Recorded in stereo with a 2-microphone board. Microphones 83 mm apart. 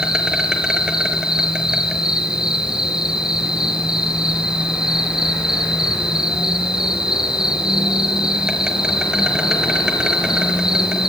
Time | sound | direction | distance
0.0 | an insect | 10° right (ahead or behind) | 5 m